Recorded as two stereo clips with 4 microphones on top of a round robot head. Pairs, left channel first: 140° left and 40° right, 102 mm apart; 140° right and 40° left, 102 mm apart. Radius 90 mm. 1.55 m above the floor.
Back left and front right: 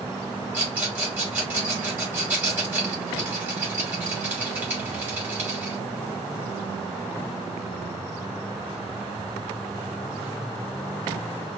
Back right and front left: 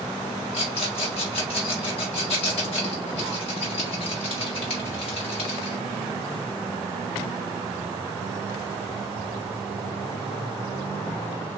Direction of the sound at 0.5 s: 110° right.